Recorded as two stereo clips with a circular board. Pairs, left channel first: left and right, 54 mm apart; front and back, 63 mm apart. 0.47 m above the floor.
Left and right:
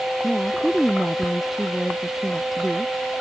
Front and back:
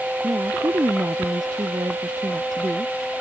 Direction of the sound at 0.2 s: 175° right.